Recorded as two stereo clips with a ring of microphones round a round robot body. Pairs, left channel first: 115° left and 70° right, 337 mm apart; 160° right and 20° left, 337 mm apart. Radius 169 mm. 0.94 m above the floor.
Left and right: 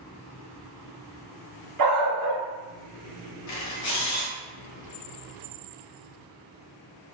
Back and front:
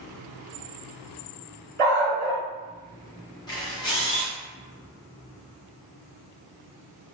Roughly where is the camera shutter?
Behind left.